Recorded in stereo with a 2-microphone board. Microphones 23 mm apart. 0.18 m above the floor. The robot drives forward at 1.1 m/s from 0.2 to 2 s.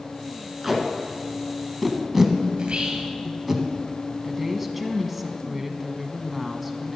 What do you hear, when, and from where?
0.6 s tape being pulled: centre (ahead or behind), 2.5 m
2.6 s whispering: 50° right (ahead or behind), 3 m
4.2 s a woman speaking: 5° right (ahead or behind), 1.3 m